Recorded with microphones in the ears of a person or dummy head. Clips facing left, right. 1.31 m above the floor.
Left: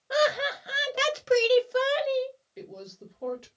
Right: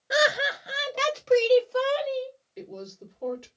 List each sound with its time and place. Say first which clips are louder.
0.1 s laughter: even; 25° right (ahead or behind), 0.5 m; by 2.3 s 30° left (ahead or behind), 1.4 m
2.6 s a woman speaking: right 6 dB; 5° left (ahead or behind), 1.9 m